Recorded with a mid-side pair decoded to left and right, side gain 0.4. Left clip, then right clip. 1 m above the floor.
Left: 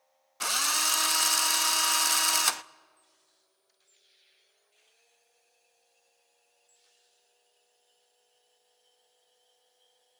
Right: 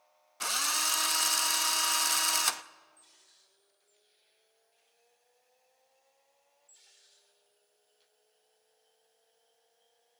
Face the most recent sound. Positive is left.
turn(degrees=25)